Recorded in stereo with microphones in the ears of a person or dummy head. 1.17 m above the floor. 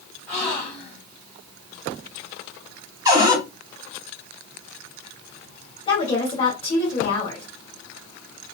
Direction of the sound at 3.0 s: 25° right (ahead or behind).